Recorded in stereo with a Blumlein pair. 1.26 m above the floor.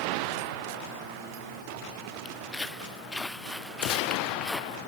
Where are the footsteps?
10° left; by 4.8 s straight ahead.